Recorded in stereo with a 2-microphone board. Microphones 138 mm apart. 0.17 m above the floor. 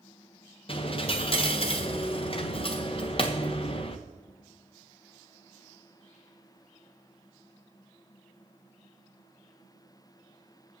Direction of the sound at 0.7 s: 40° left (ahead or behind).